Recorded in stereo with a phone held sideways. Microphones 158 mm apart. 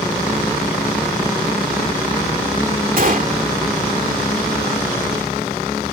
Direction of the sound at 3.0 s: 60° right (ahead or behind).